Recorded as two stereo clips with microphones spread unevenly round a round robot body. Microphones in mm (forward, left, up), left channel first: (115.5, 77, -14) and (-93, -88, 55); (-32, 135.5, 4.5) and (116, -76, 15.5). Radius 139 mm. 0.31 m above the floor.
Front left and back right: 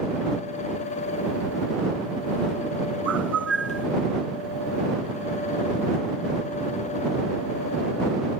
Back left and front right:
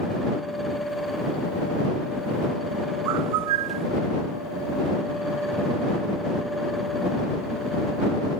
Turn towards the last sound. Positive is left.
turn(degrees=-55)